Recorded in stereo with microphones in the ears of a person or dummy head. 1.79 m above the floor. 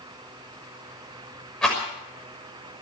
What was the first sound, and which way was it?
A rattle, 5° left (ahead or behind).